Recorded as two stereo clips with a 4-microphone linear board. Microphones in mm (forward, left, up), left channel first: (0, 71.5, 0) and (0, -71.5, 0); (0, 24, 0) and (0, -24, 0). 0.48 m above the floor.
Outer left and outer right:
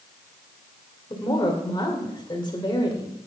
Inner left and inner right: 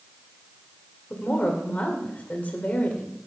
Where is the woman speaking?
35° left (ahead or behind), 1.9 m.